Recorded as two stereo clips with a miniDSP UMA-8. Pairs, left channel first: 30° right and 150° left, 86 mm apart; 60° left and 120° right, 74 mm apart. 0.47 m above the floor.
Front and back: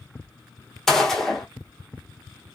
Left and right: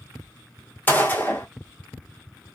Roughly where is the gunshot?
Ahead left.